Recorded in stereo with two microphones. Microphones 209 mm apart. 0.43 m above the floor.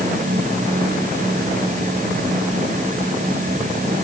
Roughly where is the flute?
I don't hear a flute.